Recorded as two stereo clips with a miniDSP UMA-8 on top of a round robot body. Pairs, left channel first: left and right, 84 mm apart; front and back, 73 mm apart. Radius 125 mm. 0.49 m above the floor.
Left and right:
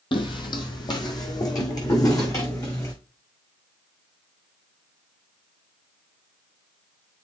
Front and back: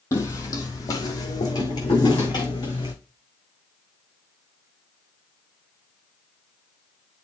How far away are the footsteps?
About 1.4 m.